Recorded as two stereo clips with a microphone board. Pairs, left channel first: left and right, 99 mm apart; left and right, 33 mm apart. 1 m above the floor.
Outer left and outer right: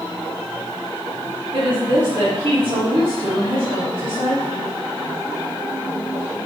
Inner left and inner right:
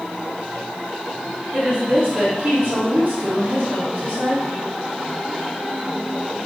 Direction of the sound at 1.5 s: 60° right (ahead or behind).